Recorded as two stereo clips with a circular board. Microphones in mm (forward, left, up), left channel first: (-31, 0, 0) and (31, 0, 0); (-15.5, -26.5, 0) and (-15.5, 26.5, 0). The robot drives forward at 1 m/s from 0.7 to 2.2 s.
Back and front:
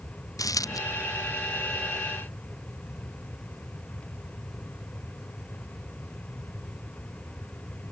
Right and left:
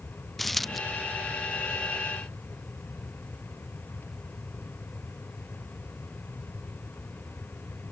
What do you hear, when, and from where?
0.4 s a dropped coin: 175° right; by 0.8 s straight behind